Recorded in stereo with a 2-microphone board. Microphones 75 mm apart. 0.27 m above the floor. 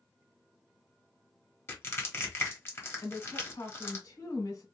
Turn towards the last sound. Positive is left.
turn(degrees=55)  # may be behind; listen again after turning